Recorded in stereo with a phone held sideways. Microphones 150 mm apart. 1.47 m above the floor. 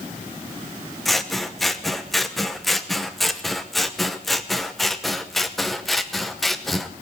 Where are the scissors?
Centre (ahead or behind), 0.8 m.